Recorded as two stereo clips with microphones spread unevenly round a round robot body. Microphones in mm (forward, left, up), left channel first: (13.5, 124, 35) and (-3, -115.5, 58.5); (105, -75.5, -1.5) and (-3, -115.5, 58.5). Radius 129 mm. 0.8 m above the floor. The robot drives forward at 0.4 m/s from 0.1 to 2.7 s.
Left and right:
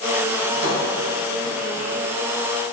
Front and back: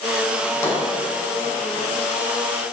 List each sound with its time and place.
0.4 s a drawer: 45° right, 3.5 m; by 2.7 s 60° right, 2.5 m